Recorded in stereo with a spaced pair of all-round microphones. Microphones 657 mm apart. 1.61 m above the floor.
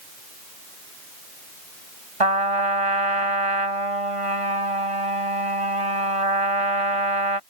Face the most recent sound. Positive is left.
turn(degrees=-55)  # may be behind; listen again after turning